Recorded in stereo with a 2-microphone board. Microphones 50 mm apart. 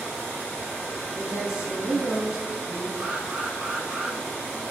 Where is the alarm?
20° right (ahead or behind), 3 m.